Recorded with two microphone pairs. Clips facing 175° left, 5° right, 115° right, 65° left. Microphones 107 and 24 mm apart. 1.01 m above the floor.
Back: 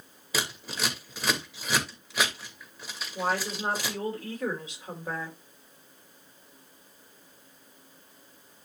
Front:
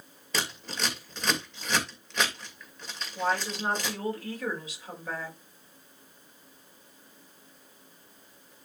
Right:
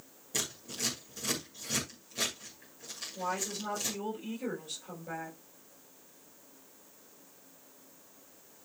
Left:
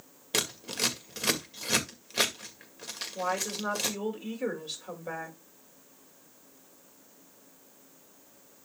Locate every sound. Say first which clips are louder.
0.3 s scissors: back 1 dB, left 6 dB; 90° left, 2 m
3.1 s a woman speaking: even, left 4 dB; 110° left, 5.5 m